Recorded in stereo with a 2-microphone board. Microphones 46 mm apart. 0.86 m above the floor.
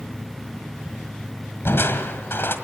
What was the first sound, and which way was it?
Crushing, 60° left (ahead or behind).